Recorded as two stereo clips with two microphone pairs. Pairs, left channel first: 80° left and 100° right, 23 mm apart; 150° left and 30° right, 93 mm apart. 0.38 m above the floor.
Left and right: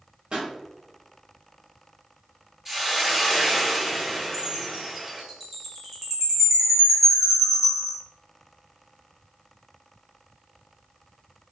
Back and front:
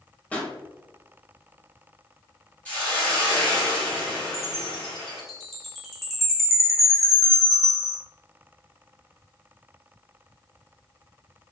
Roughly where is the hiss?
Behind right.